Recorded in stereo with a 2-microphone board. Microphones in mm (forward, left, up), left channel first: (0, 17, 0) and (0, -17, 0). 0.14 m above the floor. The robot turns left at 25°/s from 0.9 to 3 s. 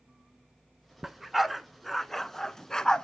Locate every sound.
1.0 s a dog barking: 10° right (ahead or behind), 0.6 m; by 3.0 s 20° left (ahead or behind), 0.6 m